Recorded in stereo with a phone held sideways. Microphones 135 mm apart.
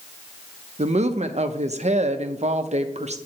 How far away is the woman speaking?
About 0.6 m.